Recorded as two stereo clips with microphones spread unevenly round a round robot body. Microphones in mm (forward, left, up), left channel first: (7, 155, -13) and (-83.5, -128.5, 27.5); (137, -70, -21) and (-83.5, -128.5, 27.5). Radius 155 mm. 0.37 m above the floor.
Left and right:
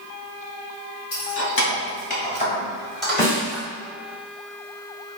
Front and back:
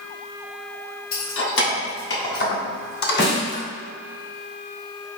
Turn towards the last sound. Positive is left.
turn(degrees=0)